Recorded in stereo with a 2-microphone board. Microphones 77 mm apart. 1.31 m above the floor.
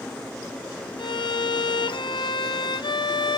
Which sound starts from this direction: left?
A violin, at 1.0 s.